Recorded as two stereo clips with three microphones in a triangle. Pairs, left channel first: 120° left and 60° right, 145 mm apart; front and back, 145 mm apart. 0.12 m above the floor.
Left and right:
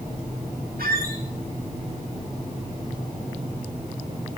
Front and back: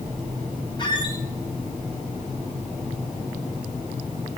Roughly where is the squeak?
Ahead right.